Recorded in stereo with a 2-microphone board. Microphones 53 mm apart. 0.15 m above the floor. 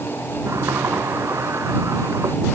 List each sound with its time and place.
0.5 s a sliding door: 65° right (ahead or behind)